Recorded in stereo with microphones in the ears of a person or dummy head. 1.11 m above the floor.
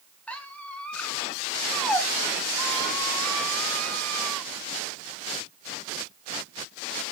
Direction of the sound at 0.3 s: 10° left (ahead or behind).